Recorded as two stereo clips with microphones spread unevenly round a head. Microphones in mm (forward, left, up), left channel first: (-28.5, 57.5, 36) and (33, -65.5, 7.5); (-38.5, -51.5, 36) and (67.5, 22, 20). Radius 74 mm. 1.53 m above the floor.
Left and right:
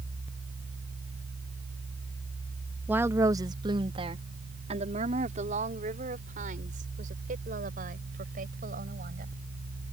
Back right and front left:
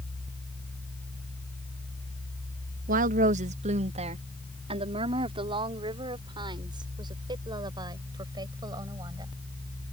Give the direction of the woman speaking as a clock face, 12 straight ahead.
12 o'clock.